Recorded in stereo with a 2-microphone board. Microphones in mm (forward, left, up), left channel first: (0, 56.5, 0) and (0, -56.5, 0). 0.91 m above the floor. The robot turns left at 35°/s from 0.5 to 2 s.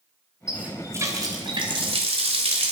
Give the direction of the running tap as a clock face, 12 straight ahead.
12 o'clock.